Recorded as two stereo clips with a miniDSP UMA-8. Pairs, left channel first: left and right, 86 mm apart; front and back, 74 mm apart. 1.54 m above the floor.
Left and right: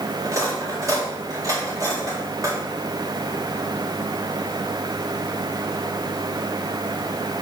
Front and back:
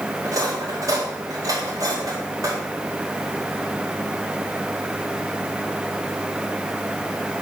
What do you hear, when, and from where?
0.2 s cutlery clinking: 140° right, 2.0 m